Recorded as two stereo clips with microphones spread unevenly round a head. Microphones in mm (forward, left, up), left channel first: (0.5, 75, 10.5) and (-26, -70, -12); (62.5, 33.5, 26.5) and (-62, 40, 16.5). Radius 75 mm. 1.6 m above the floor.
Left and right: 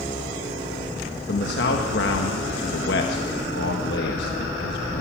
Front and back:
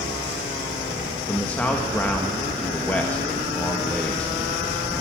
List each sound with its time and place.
1.3 s a man speaking: 75° left, 1.9 m